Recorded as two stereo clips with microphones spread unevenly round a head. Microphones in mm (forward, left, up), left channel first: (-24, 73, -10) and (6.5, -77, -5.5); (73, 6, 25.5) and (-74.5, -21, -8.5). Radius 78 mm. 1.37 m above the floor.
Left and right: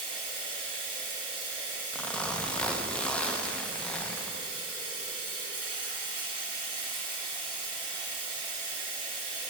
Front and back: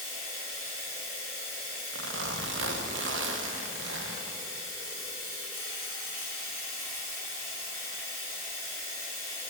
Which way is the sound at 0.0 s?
135° right.